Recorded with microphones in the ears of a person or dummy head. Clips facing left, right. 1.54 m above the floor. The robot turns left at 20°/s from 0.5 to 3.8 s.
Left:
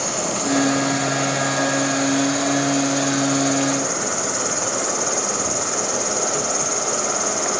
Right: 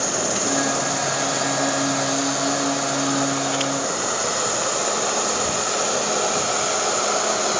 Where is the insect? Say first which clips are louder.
Even; 160° right, 1.6 m; by 7.6 s 130° left, 1.6 m.